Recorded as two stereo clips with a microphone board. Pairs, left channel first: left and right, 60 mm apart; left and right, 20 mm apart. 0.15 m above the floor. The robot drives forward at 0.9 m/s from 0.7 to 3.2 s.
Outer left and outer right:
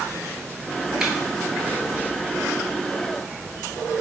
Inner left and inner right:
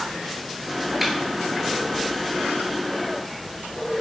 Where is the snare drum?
5° right (ahead or behind), 1.8 m.